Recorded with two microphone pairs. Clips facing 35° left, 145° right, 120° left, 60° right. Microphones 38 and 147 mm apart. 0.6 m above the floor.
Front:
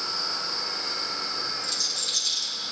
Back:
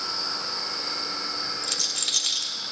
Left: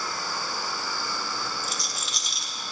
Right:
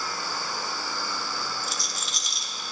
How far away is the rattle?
About 1.3 m.